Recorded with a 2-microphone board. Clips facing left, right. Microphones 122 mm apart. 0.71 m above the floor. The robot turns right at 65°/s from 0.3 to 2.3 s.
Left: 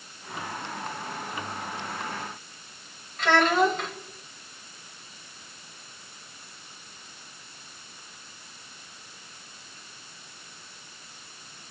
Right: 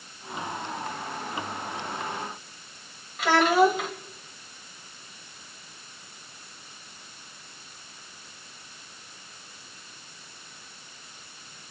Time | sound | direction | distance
3.2 | a child speaking | 5° right (ahead or behind) | 3 m